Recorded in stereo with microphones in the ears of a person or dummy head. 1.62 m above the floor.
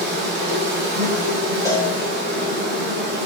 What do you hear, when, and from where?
0.0 s an insect: 65° right (ahead or behind), 1.0 m
1.6 s a cowbell: 20° left (ahead or behind), 0.5 m